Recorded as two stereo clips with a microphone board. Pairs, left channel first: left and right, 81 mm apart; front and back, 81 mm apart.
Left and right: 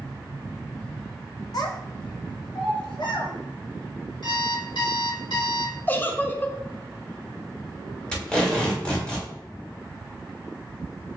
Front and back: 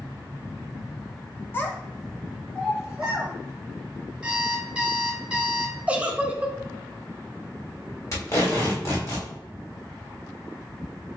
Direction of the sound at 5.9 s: 125° left.